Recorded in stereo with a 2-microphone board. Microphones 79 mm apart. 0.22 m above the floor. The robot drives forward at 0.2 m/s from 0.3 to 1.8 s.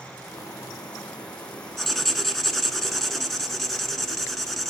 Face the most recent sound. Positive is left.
turn(degrees=5)  # may be behind; listen again after turning